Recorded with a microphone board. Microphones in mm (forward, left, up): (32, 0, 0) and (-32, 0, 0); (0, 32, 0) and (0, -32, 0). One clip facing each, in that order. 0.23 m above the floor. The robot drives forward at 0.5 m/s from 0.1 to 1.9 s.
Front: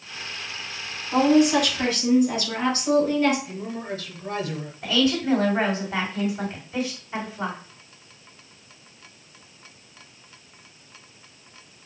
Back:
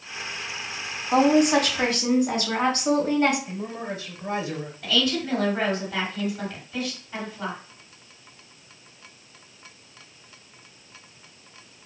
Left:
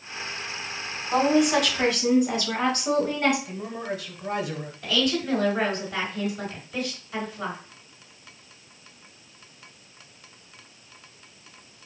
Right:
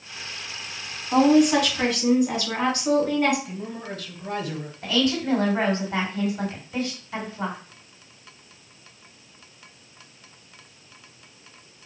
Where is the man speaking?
160° left, 1.0 m.